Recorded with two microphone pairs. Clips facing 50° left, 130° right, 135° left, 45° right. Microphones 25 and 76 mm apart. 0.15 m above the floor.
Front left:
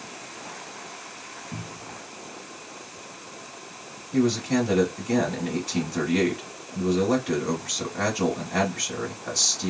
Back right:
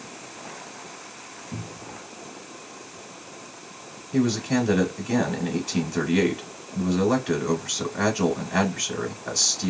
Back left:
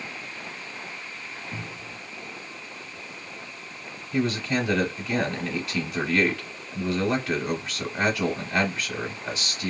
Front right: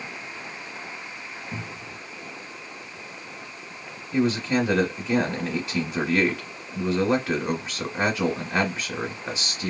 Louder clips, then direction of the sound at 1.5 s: Back right 3 dB, front right 1 dB; 55° right.